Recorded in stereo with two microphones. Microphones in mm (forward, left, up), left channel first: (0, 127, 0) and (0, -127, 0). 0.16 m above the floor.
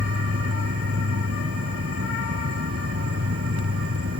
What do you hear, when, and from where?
0.0 s an insect: 65° right (ahead or behind)